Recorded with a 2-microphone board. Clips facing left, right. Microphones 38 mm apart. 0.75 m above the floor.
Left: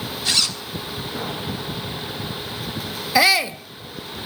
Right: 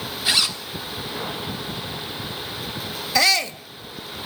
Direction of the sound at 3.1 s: 10° left (ahead or behind).